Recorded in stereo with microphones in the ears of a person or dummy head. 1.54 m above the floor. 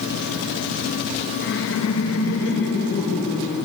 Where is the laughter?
55° left (ahead or behind), 0.7 m; by 3.6 s 60° left (ahead or behind), 1.9 m.